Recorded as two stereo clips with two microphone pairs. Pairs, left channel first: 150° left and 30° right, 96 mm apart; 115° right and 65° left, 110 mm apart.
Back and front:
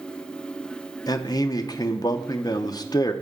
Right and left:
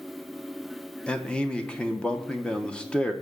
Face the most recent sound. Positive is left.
turn(degrees=165)